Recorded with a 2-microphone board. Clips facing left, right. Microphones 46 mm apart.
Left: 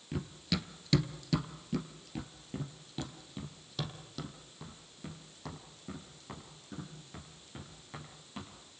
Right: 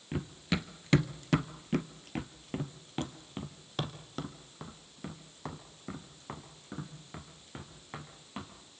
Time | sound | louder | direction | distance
0.1 | running footsteps | right 2 dB | 20° right (ahead or behind) | 1.5 m